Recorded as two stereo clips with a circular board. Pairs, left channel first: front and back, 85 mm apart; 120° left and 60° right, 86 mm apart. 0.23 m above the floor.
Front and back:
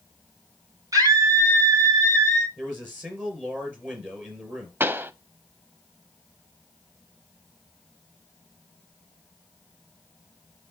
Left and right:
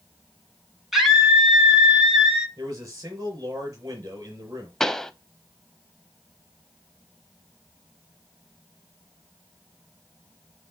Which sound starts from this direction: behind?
A pop, at 4.8 s.